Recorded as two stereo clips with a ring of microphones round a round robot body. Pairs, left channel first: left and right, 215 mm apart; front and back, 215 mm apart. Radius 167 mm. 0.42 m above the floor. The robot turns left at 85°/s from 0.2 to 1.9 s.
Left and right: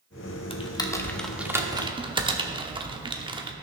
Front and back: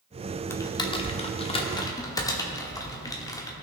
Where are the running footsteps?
I don't hear running footsteps.